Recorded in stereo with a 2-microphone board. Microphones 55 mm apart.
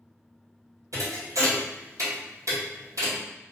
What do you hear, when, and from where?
0.9 s a thud: 85° right, 1.8 m